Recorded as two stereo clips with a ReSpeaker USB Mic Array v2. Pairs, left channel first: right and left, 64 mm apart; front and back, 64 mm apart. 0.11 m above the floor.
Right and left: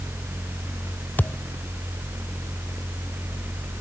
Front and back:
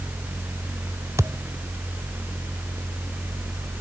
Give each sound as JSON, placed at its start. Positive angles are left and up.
{"t": 1.2, "sound": "a thud", "azimuth_deg": -150}